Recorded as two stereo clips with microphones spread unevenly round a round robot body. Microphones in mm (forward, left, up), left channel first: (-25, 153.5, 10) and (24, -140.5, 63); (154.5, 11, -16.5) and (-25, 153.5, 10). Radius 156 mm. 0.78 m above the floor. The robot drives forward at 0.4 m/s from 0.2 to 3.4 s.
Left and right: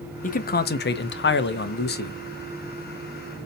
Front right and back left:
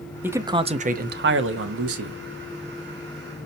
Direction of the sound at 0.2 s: 55° left.